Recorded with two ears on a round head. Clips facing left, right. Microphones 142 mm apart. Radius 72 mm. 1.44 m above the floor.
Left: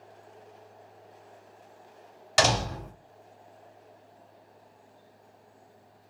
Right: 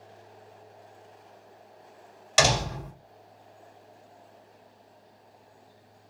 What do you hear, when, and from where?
2.4 s a door slam: 5° right (ahead or behind), 1.7 m